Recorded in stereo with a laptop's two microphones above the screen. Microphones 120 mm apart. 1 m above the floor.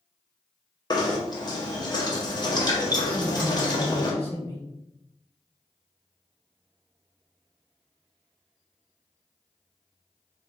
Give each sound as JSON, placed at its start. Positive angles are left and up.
{"t": 0.9, "sound": "knocking", "side_deg": 35, "distance_m": 0.7}
{"t": 3.1, "sound": "a man speaking", "side_deg": 40, "distance_m": 1.0}